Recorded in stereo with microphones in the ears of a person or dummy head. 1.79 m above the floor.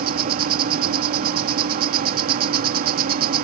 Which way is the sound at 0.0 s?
50° right (ahead or behind).